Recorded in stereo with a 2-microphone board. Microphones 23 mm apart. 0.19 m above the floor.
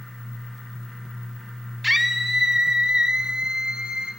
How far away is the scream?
About 1.4 m.